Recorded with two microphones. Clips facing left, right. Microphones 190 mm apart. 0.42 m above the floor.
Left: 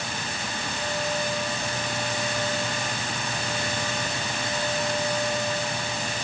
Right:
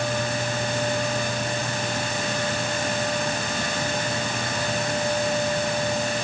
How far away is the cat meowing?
No cat meowing in this recording.